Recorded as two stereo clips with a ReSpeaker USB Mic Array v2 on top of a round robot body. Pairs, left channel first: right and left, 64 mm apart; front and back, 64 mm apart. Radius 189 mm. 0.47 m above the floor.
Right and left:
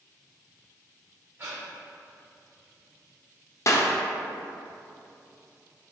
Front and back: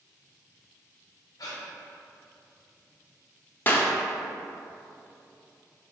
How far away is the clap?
About 0.7 m.